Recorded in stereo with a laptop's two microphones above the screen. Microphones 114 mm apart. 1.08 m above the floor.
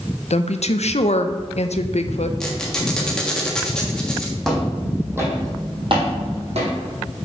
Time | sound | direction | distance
0.3 | a woman speaking | 70° left (ahead or behind) | 0.5 m
2.4 | a squeak | 5° left (ahead or behind) | 1.4 m
4.4 | footsteps | centre (ahead or behind) | 3 m